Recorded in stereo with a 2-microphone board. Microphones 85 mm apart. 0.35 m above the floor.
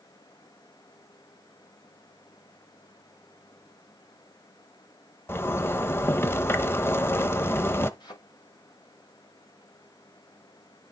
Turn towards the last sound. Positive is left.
turn(degrees=55)  # may be behind; listen again after turning